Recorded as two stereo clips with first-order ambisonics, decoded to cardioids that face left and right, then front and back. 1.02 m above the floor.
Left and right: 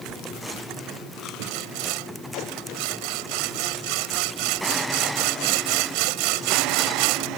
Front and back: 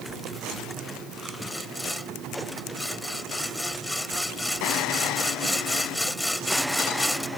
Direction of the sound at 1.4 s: 85° right.